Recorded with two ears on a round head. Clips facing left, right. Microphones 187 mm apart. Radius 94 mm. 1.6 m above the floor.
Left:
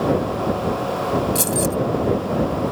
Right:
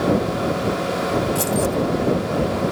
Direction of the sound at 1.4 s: 30° left (ahead or behind).